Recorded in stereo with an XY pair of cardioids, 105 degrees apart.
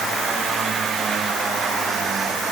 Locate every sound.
Only background noise.